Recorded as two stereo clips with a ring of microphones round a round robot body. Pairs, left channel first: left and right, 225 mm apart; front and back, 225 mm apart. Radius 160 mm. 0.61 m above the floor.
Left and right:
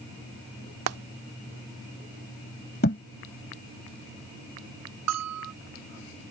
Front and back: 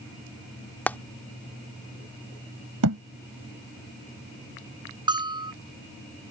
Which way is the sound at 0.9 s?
85° right.